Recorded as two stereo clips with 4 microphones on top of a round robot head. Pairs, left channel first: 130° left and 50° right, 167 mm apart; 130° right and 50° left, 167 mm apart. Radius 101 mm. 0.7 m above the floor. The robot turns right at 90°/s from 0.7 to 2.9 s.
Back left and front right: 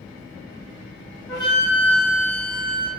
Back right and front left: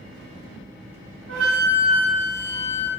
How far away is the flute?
About 2 m.